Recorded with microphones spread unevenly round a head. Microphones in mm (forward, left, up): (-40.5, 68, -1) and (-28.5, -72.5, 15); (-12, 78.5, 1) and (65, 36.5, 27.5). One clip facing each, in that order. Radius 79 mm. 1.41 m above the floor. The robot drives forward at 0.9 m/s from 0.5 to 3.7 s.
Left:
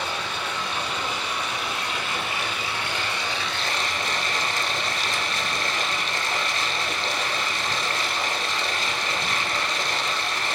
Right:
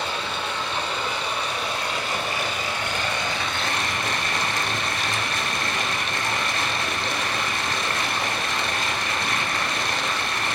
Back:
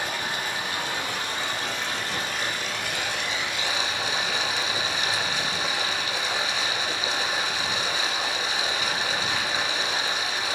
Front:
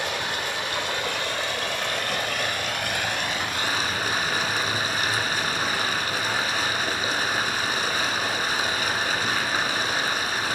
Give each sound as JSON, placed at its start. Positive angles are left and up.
{"t": 0.0, "sound": "running water", "azimuth_deg": -20, "distance_m": 4.5}